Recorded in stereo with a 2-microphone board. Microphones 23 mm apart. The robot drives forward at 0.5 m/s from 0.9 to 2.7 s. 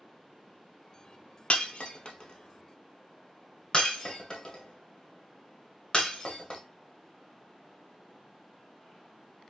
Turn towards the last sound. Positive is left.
turn(degrees=30)  # may be behind; listen again after turning